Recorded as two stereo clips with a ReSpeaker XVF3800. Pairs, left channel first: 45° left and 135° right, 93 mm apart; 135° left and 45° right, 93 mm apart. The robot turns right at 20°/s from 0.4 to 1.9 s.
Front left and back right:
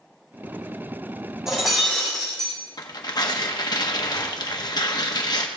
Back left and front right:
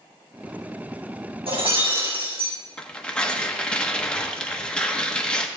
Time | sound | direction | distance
1.5 | breaking glass | 50° right | 4.5 m
2.8 | tearing paper | 60° left | 1.1 m